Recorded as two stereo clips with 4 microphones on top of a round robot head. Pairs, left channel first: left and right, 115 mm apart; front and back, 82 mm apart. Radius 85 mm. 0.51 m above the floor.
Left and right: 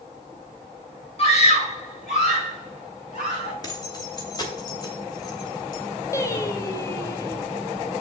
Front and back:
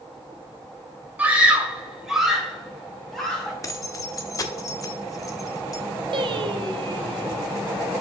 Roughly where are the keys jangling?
Ahead left.